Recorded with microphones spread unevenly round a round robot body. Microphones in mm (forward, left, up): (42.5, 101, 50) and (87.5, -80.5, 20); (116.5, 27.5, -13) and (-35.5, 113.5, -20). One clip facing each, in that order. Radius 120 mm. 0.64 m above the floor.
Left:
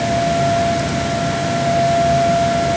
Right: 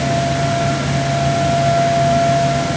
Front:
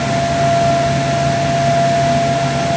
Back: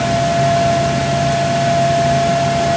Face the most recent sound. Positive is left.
No sound to turn to.